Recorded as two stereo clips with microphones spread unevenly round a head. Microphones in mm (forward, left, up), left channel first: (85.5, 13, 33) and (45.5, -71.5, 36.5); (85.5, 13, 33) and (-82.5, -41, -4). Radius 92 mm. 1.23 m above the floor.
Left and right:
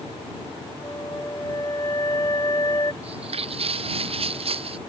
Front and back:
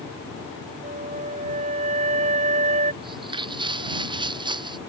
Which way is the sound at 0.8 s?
140° left.